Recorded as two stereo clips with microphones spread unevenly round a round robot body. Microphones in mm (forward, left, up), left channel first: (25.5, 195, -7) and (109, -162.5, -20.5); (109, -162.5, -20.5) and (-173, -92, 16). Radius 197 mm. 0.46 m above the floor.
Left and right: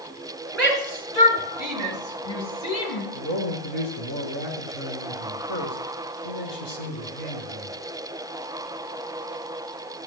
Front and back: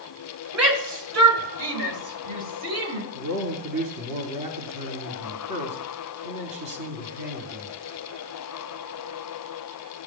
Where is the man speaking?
150° left, 3.5 m.